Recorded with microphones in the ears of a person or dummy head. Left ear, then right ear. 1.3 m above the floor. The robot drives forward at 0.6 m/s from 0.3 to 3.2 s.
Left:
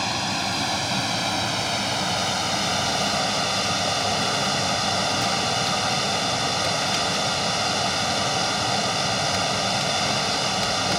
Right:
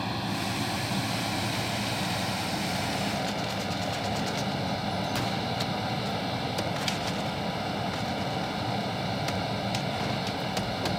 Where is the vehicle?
45° left (ahead or behind); by 11.0 s 60° left (ahead or behind).